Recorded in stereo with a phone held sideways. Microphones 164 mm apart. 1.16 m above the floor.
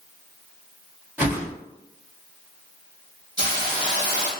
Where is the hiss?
25° right (ahead or behind), 1.2 m.